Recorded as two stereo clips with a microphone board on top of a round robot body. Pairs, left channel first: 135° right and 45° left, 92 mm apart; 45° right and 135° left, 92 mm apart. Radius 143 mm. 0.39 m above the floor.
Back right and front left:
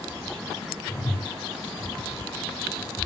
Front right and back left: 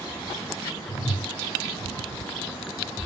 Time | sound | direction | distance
0.9 | a whoosh | 80° right | 6 m